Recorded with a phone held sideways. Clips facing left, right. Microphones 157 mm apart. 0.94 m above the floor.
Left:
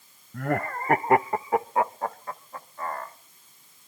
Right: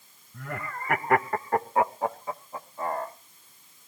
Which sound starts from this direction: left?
Laughter, at 0.3 s.